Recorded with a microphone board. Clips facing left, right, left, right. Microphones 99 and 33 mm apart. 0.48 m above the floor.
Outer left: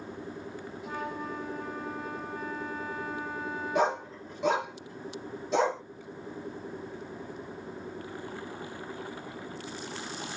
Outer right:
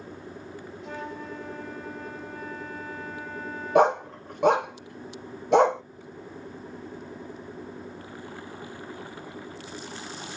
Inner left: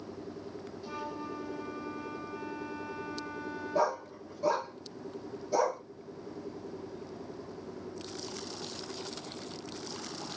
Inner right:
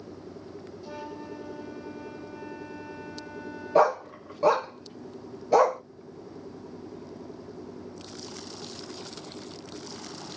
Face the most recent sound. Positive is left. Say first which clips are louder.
# outer right 8 dB, inner right 9 dB
turn(degrees=-65)  # may be behind; listen again after turning